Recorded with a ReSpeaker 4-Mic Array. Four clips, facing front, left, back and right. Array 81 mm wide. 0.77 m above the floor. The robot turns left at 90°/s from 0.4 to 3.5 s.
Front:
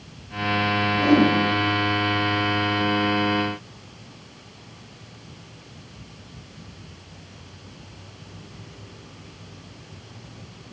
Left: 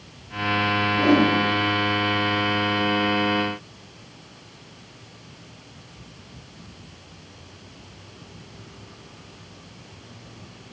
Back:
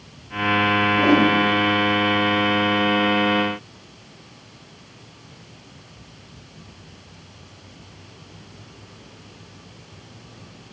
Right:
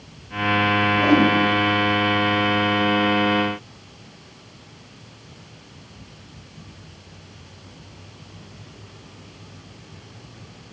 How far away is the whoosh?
About 1.6 m.